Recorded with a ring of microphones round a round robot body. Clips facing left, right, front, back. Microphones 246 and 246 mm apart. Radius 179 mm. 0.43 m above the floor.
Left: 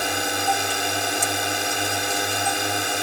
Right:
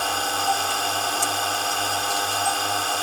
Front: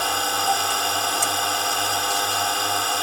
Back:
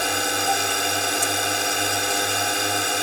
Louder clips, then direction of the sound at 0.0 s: Left 2 dB, back 2 dB; 140° left.